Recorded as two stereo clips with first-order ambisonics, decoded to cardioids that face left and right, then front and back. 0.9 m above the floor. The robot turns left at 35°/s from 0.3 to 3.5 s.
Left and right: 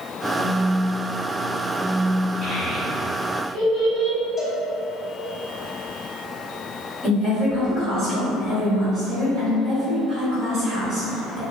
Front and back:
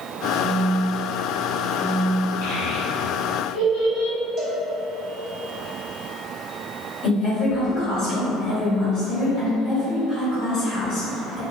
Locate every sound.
0.4 s a phone buzzing: 90° left, 0.9 m; by 2.3 s 25° left, 0.9 m
2.4 s a child speaking: 10° right, 1.5 m; by 4.2 s 45° right, 1.5 m
4.4 s a cowbell: straight behind, 0.7 m
7.0 s a woman speaking: 30° right, 1.6 m